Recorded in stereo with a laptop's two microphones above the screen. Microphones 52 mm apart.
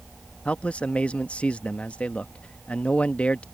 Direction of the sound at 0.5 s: 25° left (ahead or behind).